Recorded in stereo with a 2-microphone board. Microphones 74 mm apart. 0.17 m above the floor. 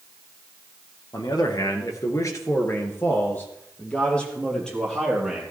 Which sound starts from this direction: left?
A man speaking, at 1.1 s.